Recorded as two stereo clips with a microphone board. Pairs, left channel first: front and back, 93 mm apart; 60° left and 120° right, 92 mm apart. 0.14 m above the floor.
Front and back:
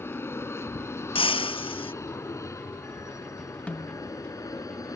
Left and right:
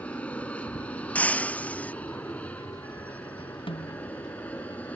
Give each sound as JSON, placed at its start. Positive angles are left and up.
{"t": 0.0, "sound": "an aircraft", "azimuth_deg": 0}
{"t": 1.1, "sound": "breaking glass", "azimuth_deg": -15}
{"t": 3.7, "sound": "a snare drum", "azimuth_deg": 80}